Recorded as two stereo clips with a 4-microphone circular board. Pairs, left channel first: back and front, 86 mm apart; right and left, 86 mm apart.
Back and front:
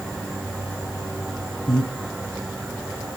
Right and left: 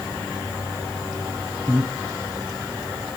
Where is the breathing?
160° left, 3 m.